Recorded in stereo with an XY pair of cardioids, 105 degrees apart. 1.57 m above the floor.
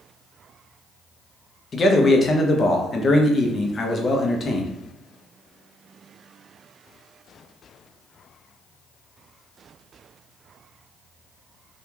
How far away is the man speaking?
About 0.8 m.